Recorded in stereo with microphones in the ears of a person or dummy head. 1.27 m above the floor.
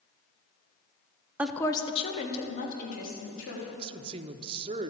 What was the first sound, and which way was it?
A woman speaking, 10° right (ahead or behind).